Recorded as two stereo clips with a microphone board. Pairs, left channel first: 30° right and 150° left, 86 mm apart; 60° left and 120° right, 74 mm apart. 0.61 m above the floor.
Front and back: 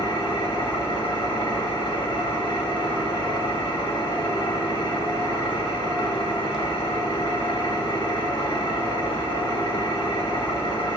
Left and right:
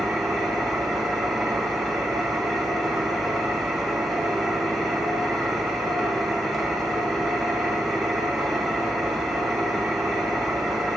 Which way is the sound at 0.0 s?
30° right.